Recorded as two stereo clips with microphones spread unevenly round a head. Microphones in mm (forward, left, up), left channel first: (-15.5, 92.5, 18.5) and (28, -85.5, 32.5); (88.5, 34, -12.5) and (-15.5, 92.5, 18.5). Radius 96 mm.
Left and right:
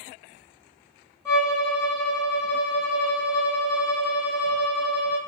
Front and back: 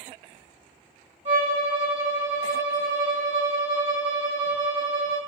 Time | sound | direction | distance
1.2 | a violin | straight behind | 1.5 m